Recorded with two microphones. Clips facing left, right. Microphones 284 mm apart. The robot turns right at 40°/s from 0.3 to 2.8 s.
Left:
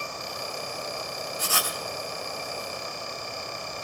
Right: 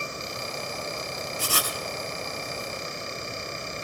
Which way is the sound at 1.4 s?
35° right (ahead or behind).